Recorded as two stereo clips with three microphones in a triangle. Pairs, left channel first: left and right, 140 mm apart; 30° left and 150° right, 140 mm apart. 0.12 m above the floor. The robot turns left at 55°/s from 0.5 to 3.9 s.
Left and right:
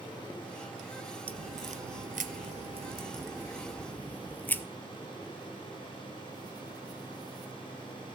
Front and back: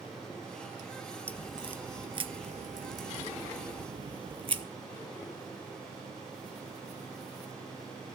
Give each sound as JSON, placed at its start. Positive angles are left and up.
{"t": 1.3, "sound": "a crack", "azimuth_deg": -50, "distance_m": 0.5}